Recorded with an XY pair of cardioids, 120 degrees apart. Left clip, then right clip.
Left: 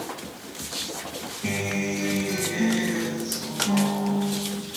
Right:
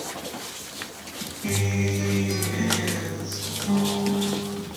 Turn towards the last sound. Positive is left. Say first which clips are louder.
# even
turn(degrees=45)